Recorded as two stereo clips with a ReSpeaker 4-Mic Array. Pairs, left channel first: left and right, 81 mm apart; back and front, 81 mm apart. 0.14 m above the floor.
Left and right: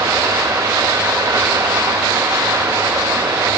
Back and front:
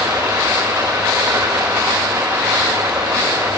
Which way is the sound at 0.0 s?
60° right.